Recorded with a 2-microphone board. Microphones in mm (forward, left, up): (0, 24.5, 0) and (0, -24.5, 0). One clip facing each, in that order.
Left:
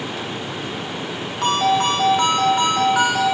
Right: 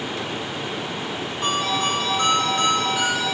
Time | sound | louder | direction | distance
1.4 | a ringtone | left 6 dB | 65° left (ahead or behind) | 2 m